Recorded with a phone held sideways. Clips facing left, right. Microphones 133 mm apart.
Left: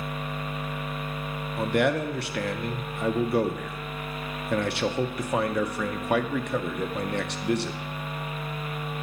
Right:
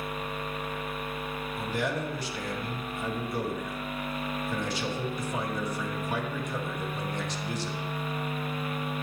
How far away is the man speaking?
About 0.7 m.